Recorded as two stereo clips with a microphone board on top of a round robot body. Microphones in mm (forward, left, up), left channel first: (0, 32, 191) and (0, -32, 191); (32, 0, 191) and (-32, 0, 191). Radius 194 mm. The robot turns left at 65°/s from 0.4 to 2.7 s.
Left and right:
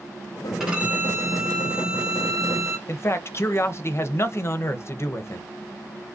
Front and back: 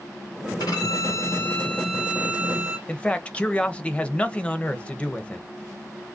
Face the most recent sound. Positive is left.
turn(degrees=65)